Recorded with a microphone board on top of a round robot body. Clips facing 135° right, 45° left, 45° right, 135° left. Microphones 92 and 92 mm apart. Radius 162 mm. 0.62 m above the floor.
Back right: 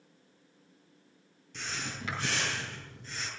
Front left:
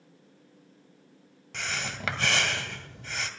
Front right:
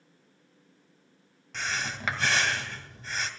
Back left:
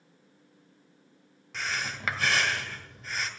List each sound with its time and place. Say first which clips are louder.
1.5 s breathing: front left 4 dB, front right 1 dB; 45° left, 1.6 m